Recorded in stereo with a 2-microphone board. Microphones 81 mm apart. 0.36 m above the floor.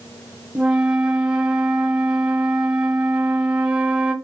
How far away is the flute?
About 0.6 m.